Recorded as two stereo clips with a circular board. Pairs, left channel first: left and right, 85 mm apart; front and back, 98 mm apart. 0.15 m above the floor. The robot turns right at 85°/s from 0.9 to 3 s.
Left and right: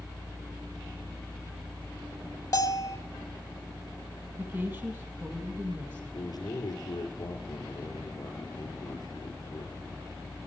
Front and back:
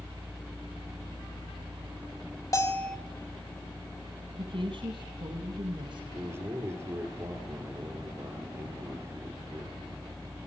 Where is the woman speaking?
155° right, 4 m.